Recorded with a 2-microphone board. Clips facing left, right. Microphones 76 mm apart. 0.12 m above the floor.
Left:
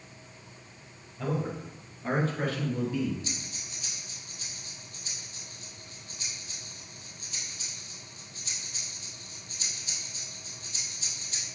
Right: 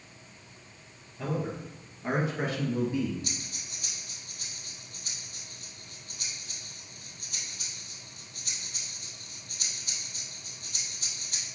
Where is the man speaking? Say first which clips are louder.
Left 1 dB; 5° right (ahead or behind), 3 m; by 3.1 s 25° right (ahead or behind), 1.5 m.